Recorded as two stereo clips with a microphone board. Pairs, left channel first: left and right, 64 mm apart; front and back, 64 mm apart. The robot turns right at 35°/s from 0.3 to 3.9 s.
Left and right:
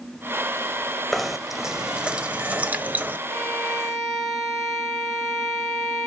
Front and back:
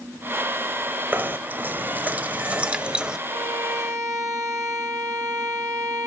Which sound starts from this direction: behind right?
A violin, at 3.3 s.